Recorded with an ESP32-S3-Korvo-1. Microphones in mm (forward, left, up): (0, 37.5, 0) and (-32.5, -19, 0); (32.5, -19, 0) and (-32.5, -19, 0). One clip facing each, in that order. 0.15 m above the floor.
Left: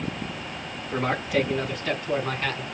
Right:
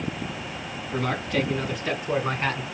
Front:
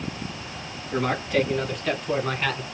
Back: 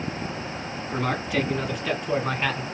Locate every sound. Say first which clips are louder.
0.9 s a man speaking: left 2 dB, front 2 dB; 100° left, 1.6 m; by 2.6 s 105° right, 1.7 m